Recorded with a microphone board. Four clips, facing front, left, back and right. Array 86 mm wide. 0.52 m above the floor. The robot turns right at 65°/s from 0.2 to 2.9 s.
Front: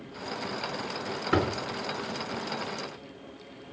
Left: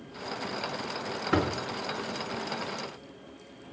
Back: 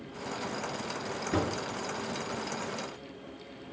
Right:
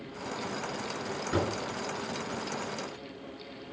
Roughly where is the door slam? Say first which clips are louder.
Left 3 dB, front 4 dB; ahead left.